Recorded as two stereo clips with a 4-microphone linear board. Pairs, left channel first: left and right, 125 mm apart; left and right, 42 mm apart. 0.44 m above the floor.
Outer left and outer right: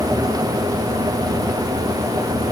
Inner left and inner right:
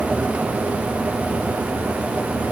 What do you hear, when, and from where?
Only background noise.